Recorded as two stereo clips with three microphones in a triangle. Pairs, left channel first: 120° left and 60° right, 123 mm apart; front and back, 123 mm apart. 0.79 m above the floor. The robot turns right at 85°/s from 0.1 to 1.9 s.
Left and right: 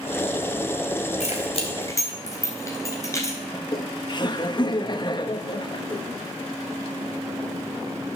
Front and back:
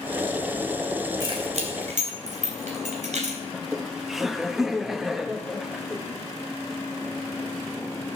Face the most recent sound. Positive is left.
turn(degrees=95)